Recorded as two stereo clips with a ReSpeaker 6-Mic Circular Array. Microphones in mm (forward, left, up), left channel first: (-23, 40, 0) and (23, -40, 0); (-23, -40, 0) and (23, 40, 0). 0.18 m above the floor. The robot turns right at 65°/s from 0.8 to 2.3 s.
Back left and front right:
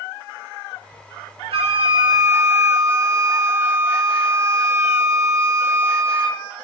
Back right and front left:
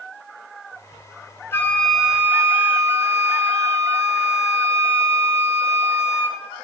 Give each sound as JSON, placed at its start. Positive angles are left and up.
{"t": 1.5, "sound": "a flute", "azimuth_deg": -60, "distance_m": 0.6}